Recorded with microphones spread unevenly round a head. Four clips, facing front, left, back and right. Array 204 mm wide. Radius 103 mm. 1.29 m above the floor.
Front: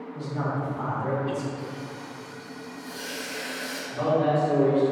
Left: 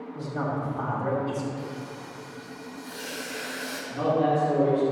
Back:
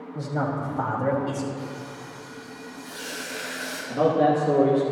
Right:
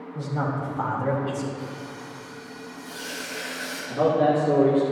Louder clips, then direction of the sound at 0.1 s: Right 2 dB, back 3 dB; straight behind.